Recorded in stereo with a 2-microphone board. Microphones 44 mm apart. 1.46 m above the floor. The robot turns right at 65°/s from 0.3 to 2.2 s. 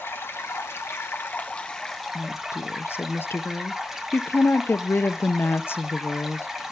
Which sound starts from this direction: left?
A woman speaking, at 2.1 s.